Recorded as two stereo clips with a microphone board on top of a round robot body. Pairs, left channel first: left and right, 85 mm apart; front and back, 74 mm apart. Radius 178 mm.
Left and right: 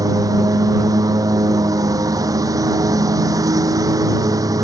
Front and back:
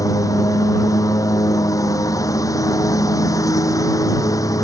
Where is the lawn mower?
40° right.